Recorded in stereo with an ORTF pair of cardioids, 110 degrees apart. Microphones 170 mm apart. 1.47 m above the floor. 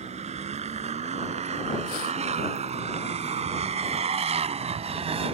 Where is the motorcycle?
40° right.